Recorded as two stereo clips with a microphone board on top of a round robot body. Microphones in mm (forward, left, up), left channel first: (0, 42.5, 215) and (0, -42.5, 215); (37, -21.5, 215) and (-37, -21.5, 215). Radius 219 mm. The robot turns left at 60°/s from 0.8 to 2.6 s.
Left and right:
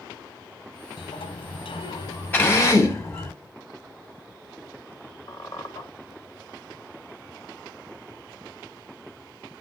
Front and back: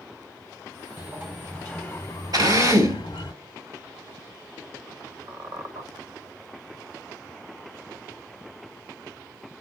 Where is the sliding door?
120° left, 0.8 m; by 3.3 s 25° left, 0.8 m.